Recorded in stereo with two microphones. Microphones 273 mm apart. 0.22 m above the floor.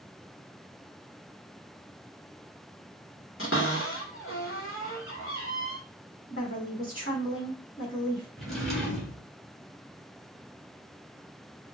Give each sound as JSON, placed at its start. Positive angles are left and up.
{"t": 3.4, "sound": "a cupboard door", "side_deg": 50, "distance_m": 1.3}
{"t": 6.3, "sound": "a woman speaking", "side_deg": 45, "distance_m": 1.6}
{"t": 8.4, "sound": "a drawer", "side_deg": 0, "distance_m": 1.5}